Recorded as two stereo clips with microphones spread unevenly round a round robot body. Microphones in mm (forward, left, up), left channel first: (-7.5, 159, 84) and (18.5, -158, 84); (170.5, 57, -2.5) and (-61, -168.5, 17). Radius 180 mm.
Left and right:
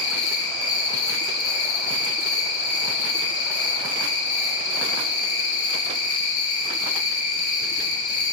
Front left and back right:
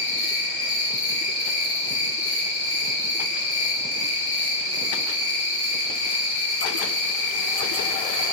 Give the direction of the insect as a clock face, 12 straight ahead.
10 o'clock.